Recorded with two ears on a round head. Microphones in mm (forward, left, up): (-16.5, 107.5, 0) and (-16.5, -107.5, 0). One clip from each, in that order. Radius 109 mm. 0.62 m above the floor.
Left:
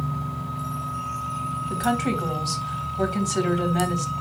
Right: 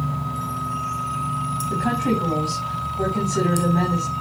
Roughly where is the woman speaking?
Left.